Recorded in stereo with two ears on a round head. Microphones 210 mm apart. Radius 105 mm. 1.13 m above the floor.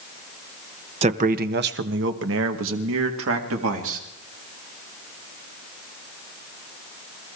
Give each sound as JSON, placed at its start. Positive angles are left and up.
{"t": 1.0, "sound": "a man speaking", "side_deg": -25, "distance_m": 0.8}